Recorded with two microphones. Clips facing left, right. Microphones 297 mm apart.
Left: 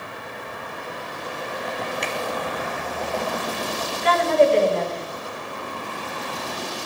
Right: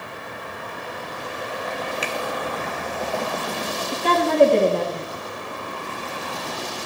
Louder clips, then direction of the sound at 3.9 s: Even; 50° right (ahead or behind).